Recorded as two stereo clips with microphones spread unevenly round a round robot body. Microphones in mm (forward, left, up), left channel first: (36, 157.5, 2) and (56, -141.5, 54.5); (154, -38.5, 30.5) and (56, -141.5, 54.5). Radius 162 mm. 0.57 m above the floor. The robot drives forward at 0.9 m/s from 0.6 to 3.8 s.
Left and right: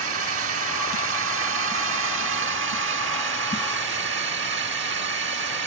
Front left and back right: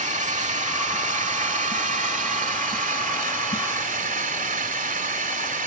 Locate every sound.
0.0 s a drone: 125° right; by 5.7 s 140° right